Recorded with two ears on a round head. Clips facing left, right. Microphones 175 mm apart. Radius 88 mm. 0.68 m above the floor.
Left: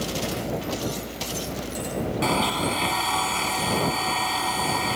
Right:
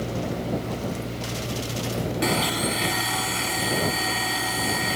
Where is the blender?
20° right (ahead or behind).